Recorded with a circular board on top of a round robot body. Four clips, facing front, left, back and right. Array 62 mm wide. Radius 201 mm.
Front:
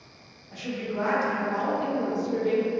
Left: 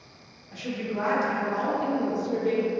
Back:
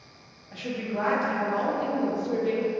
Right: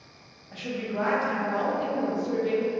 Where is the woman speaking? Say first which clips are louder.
Even, even; 140° right, 1.1 m.